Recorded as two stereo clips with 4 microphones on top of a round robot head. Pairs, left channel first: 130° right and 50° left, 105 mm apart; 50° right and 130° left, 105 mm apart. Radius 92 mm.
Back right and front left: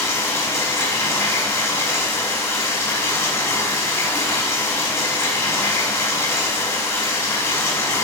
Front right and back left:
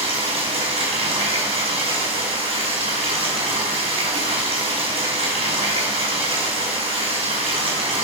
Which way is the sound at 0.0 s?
165° left.